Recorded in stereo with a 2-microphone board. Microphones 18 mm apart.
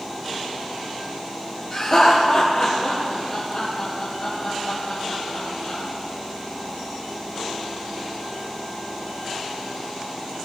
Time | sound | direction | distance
1.7 | laughter | 50° left (ahead or behind) | 4 m